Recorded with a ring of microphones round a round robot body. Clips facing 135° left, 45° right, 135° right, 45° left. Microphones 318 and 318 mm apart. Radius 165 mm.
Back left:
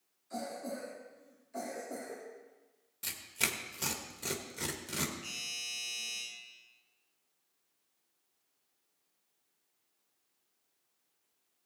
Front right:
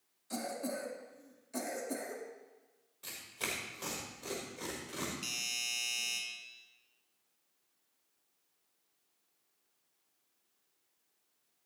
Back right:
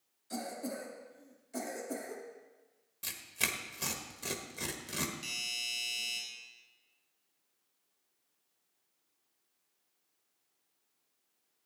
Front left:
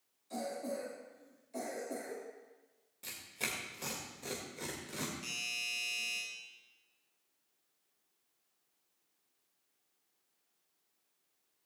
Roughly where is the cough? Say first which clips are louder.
Front right 2 dB, even; right.